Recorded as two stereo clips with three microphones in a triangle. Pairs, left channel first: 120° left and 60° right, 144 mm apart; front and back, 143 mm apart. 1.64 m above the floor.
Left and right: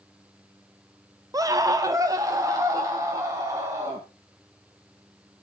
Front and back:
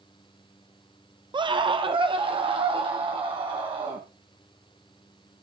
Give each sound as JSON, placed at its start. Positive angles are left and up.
{"t": 1.3, "sound": "a scream", "azimuth_deg": -125, "distance_m": 0.6}